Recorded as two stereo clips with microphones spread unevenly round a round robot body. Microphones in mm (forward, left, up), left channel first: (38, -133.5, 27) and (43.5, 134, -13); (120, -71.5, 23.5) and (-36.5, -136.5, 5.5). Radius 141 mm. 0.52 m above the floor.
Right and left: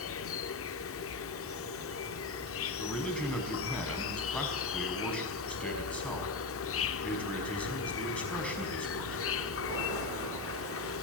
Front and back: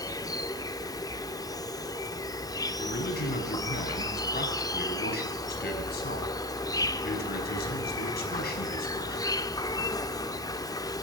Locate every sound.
0.0 s an insect: 50° right, 0.8 m
2.8 s a man speaking: 5° right, 5 m